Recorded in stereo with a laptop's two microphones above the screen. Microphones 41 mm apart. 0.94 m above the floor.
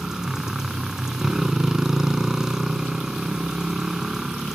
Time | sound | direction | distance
0.0 | a motorcycle | 10° right (ahead or behind) | ?